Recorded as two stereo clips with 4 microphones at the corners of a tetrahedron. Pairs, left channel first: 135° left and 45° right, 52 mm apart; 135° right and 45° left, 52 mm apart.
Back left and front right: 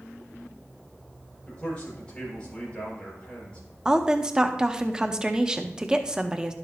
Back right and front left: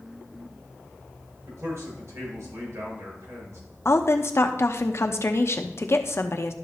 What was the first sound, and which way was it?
A man speaking, 65° left.